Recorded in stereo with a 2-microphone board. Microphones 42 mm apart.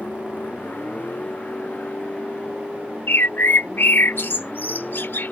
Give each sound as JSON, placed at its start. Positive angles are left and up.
{"t": 0.0, "sound": "a vehicle", "side_deg": 45}
{"t": 3.1, "sound": "a bird", "side_deg": 60}